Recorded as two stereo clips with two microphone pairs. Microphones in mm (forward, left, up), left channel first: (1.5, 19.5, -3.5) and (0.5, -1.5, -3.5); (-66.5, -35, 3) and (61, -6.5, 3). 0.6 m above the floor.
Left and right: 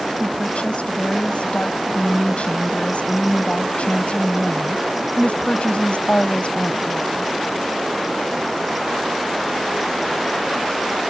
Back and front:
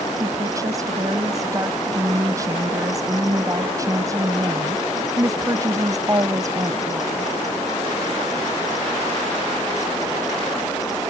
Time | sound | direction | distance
0.2 | a woman speaking | 75° left | ?